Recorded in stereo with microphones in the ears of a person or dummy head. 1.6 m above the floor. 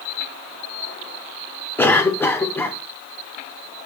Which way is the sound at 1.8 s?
10° left (ahead or behind).